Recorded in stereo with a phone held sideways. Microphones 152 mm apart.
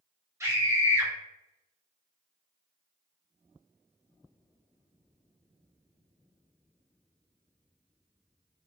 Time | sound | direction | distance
0.4 | a scream | 15° right (ahead or behind) | 0.9 m